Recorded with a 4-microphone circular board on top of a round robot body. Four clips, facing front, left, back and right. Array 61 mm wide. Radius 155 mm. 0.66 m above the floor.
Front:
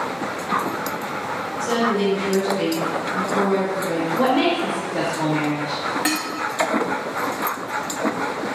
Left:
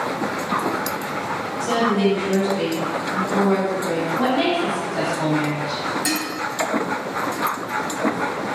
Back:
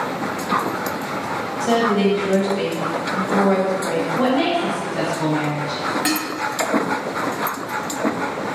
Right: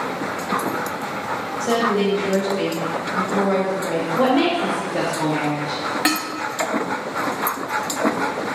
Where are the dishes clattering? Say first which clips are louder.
Right 3 dB, back 1 dB; 90° right, 0.7 m.